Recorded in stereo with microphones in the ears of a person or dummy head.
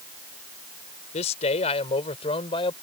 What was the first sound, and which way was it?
A man speaking, 40° left (ahead or behind).